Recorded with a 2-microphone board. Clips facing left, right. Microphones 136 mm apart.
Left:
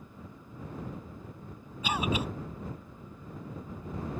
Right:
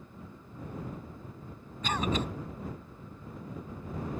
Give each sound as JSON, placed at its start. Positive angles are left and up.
{"t": 1.8, "sound": "a cough", "side_deg": 10}